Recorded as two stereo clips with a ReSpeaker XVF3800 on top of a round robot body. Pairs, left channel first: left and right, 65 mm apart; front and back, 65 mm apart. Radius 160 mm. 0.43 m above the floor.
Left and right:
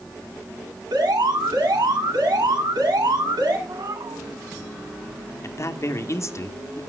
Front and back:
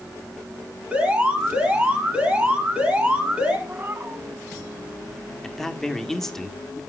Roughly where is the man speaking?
Left.